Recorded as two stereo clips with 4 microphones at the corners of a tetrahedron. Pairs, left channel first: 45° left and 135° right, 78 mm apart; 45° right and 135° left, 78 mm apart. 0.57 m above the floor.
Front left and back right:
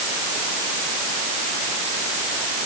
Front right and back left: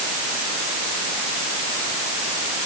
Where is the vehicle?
No vehicle in this recording.